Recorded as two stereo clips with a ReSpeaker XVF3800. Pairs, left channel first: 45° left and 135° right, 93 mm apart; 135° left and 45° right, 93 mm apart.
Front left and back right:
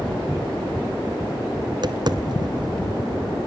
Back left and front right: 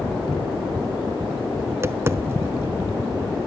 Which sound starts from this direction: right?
Tapping, at 1.7 s.